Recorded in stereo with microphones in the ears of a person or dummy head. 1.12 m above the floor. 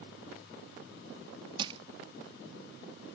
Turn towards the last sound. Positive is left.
turn(degrees=-25)  # may be behind; listen again after turning